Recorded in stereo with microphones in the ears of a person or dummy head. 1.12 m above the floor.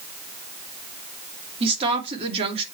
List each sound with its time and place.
1.6 s a woman speaking: 30° right (ahead or behind), 2.5 m